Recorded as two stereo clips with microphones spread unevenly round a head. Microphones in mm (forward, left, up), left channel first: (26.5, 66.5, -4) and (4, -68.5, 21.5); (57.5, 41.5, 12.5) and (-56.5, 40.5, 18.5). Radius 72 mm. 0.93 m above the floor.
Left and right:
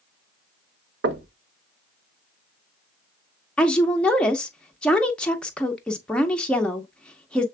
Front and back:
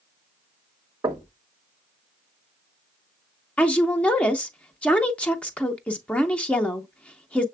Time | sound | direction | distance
1.0 | knocking | 105° right | 0.6 m
3.6 | a woman speaking | 45° left | 0.5 m